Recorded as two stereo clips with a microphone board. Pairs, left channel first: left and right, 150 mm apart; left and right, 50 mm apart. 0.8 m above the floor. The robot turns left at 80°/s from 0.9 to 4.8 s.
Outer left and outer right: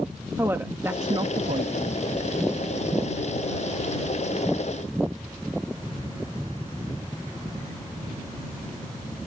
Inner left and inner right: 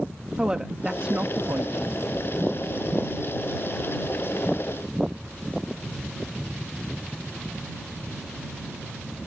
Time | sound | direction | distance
0.4 | a woman speaking | 20° right | ?